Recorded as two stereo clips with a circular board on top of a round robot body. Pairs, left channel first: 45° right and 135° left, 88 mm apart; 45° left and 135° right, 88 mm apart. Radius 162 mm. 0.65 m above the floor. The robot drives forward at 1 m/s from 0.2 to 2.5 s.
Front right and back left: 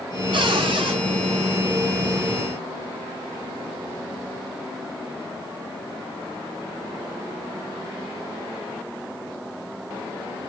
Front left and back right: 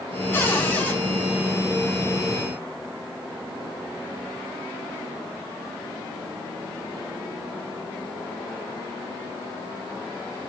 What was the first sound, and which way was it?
A cupboard door, 110° left.